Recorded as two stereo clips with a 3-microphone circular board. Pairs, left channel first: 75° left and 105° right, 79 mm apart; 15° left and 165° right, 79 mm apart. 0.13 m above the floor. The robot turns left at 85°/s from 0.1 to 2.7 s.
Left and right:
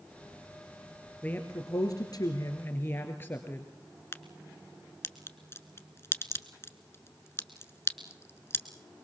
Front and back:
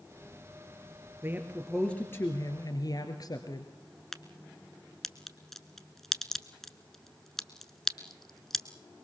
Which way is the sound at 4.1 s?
100° left.